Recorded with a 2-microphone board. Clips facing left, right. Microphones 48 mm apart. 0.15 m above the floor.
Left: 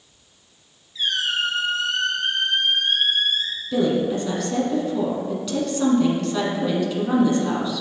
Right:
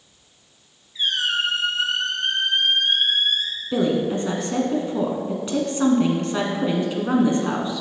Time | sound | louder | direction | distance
0.9 | a squeak | right 1 dB | 25° right (ahead or behind) | 2.5 m
3.7 | a woman speaking | even | 30° right (ahead or behind) | 1.4 m